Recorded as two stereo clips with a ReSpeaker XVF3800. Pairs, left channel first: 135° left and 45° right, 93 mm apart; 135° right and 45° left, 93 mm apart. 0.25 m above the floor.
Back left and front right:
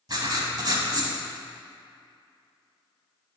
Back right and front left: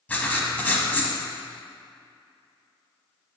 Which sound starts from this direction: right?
Writing, at 0.1 s.